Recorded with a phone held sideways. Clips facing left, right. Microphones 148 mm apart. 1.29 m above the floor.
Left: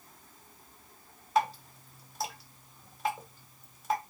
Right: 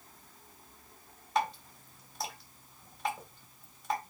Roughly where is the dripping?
Centre.